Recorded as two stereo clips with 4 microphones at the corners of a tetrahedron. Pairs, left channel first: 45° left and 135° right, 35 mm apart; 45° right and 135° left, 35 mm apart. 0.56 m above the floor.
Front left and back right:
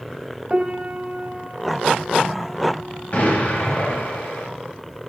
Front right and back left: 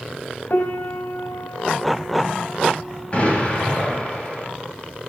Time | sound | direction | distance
0.5 | a piano | 70° right | 0.9 m
3.1 | an explosion | 5° left | 4 m